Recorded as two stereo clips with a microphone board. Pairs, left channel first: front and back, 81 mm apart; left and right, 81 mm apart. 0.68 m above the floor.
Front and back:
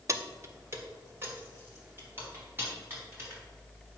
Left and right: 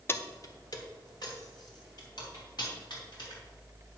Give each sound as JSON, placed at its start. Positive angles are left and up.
{"t": 0.1, "sound": "keys jangling", "azimuth_deg": 140, "distance_m": 0.6}